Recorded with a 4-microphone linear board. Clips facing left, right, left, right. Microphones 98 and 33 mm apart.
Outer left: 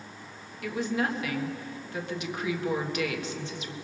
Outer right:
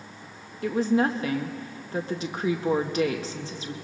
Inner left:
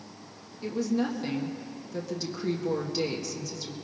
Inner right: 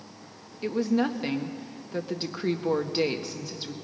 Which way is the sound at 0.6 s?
35° right (ahead or behind).